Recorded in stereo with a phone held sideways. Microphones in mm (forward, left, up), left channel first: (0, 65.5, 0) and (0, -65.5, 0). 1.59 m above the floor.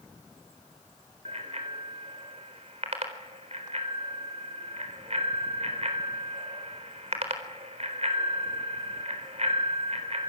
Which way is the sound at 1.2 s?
55° right (ahead or behind).